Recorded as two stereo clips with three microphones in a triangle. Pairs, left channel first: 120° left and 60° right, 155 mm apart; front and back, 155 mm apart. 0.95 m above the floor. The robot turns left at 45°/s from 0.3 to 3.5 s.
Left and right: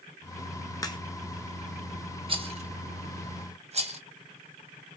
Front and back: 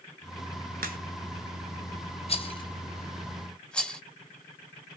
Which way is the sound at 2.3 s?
25° right.